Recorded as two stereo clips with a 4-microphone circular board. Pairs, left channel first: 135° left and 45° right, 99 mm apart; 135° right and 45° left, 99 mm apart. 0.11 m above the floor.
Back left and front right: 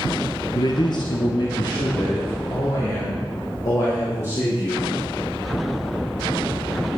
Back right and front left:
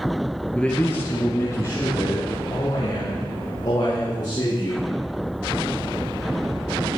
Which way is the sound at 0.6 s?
145° left.